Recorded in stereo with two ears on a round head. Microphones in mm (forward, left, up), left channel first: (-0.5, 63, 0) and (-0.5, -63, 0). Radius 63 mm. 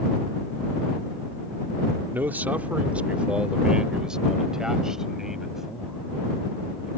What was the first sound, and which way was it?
A man speaking, 15° right (ahead or behind).